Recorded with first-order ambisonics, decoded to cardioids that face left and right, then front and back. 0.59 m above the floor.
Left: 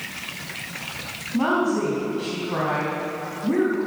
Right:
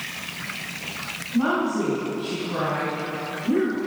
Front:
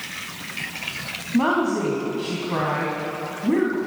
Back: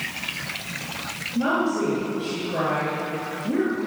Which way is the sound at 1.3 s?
20° left.